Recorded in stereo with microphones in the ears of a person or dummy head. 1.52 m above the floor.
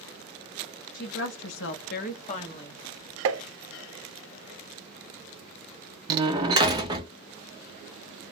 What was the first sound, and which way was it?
A woman speaking, 45° left (ahead or behind).